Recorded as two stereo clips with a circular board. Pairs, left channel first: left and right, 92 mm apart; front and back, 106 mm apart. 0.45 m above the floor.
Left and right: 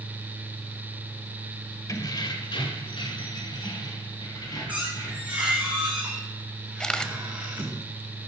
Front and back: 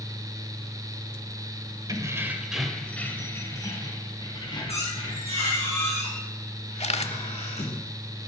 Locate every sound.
1.9 s keys jangling: 135° left, 1.3 m; by 5.4 s 40° left, 3.5 m
4.7 s a squeak: 20° right, 4.5 m
6.8 s a camera shutter: 5° left, 0.8 m